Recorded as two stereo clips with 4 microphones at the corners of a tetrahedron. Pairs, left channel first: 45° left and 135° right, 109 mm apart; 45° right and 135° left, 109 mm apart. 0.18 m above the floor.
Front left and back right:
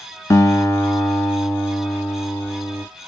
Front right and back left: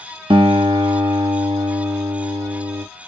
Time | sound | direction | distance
0.3 | a guitar | 105° left | 1.1 m